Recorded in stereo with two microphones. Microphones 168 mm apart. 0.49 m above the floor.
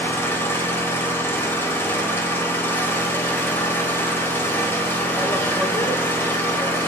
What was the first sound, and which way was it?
An engine running, 15° left (ahead or behind).